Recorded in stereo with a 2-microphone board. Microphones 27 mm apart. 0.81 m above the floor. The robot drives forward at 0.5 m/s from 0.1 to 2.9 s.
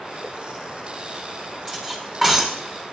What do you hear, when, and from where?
1.7 s cutlery clinking: 20° right (ahead or behind), 5 m; by 2.6 s 15° right (ahead or behind), 5.5 m